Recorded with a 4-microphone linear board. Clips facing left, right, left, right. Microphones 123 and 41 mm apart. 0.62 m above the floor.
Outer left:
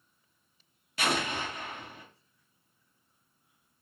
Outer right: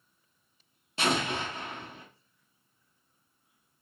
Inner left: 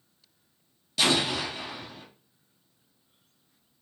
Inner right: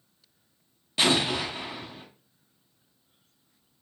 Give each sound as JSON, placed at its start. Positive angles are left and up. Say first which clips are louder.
{"t": 1.0, "sound": "an explosion", "louder": "outer right 2 dB, inner right 1 dB", "side_deg": -25, "distance_m": 0.9}